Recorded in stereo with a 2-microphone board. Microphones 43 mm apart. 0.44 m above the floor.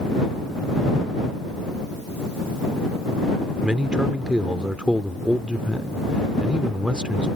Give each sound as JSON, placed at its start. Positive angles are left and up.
{"t": 3.6, "sound": "a man speaking", "side_deg": -20}